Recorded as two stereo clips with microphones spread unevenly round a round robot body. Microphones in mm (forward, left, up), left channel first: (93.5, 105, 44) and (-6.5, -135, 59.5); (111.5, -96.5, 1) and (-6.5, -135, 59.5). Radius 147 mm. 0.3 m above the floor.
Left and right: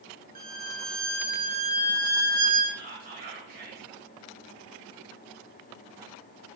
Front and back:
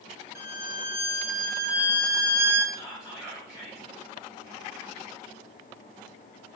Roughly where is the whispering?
Ahead right.